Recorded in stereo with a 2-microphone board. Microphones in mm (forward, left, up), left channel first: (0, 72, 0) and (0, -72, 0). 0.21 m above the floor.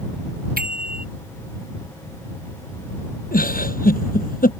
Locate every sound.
0.6 s a bicycle bell: 85° right
3.3 s a giggle: 80° left